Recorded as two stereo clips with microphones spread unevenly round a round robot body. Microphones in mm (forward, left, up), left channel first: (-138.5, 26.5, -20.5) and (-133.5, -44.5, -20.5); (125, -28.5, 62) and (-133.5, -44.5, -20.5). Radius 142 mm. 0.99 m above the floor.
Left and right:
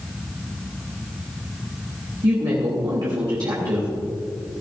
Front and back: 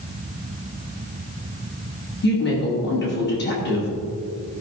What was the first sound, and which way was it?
A woman speaking, 50° right.